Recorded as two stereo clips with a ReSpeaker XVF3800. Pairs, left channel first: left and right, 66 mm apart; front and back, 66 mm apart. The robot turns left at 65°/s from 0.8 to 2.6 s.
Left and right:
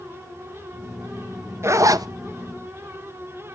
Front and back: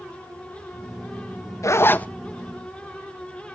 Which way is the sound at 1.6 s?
40° right.